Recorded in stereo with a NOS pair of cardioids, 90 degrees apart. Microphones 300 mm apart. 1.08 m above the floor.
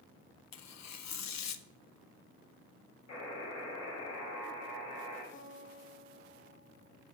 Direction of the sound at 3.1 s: 55° left.